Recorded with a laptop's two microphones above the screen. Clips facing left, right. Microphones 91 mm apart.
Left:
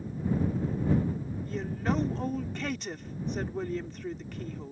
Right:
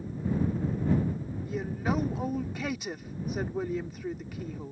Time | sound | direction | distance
1.4 | a woman speaking | 5° right (ahead or behind) | ?